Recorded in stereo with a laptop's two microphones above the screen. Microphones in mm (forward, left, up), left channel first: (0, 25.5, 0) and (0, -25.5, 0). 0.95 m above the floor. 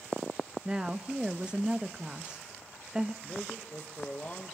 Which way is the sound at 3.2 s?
30° left (ahead or behind).